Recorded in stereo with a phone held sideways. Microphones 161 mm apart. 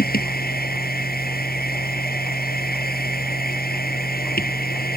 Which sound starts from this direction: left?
A machine running, at 0.0 s.